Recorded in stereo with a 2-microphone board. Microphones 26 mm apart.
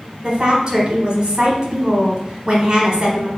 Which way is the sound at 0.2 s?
20° right (ahead or behind).